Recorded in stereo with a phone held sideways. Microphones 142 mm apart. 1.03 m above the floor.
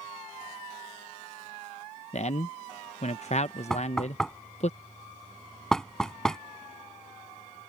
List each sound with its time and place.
2.1 s a man speaking: 50° left (ahead or behind)
3.7 s knocking: 5° left (ahead or behind)